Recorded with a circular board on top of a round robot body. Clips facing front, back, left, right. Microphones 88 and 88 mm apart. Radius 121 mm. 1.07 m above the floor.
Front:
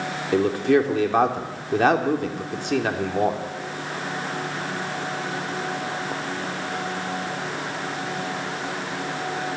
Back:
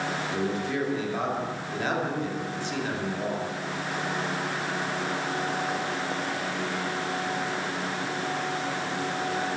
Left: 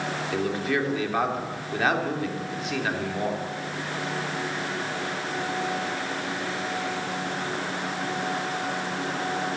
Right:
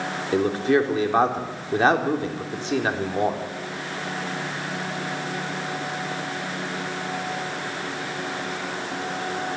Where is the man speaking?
30° right, 3 m.